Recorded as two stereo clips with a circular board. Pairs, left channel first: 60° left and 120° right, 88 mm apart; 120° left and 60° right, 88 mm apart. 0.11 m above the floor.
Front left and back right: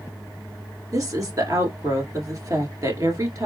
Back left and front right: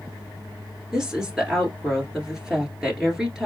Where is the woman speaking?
140° right, 1.7 m.